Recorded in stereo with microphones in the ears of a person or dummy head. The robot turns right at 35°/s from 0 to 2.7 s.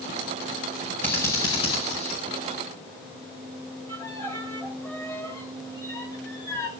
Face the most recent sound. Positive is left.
turn(degrees=15)  # may be behind; listen again after turning